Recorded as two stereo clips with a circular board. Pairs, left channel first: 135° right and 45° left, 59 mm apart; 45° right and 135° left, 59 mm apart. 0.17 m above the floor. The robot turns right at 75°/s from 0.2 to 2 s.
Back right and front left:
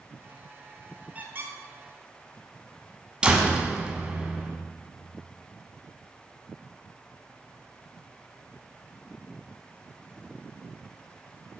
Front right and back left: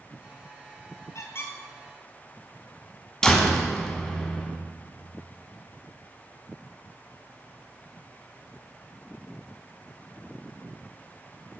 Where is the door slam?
10° left, 1.0 m.